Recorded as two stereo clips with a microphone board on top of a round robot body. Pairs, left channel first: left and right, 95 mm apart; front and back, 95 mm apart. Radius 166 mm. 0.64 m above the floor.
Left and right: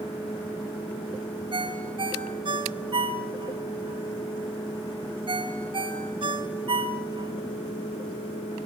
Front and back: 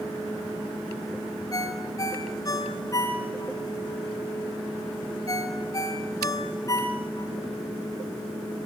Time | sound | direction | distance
1.5 | a ringtone | 55° right | 2.5 m